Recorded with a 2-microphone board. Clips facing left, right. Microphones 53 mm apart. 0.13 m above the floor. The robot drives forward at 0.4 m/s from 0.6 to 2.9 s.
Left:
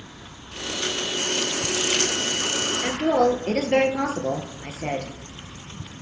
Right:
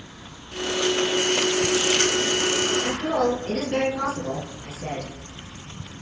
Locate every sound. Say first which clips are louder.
2.8 s a woman speaking: left 3 dB; 60° left (ahead or behind), 2 m